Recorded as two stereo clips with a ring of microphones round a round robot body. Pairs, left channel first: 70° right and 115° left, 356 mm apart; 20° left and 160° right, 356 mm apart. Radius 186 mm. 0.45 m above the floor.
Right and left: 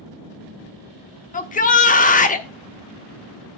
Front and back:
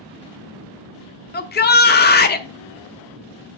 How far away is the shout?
About 1.1 m.